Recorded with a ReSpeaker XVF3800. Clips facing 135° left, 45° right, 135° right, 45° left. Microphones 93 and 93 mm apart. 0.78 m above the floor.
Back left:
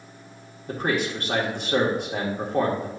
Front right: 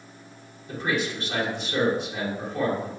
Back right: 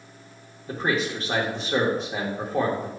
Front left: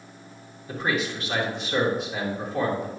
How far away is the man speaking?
About 1.8 m.